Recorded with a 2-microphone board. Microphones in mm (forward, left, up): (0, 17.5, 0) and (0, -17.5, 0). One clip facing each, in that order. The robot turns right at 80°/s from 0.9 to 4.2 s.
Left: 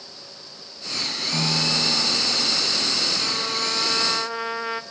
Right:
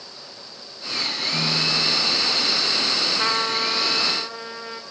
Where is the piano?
10° left, 6 m; by 2.7 s 115° left, 6 m.